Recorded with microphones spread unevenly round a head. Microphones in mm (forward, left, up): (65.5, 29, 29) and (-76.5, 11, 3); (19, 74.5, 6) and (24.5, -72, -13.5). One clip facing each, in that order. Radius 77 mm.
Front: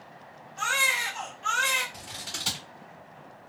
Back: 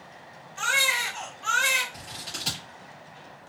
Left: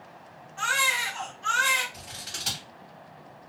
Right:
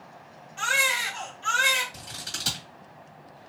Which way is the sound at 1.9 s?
70° right.